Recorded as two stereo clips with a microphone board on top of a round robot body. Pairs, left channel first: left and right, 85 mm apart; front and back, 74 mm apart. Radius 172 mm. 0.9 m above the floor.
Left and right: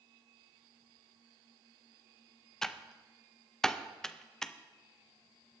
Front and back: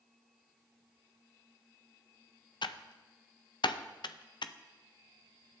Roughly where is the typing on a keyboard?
Ahead.